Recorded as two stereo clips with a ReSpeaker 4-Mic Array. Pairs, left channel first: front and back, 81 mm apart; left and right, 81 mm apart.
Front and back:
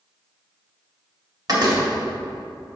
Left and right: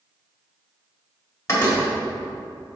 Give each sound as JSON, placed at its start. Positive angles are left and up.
{"t": 1.5, "sound": "a door slam", "azimuth_deg": 145, "distance_m": 1.8}